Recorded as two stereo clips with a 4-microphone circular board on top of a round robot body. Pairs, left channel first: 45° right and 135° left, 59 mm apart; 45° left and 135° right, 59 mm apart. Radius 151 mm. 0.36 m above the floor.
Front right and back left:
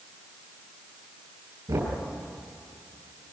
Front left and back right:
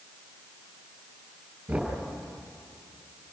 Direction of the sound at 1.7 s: 155° left.